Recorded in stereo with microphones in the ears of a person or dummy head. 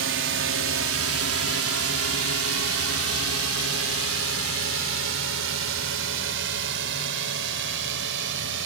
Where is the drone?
65° right (ahead or behind).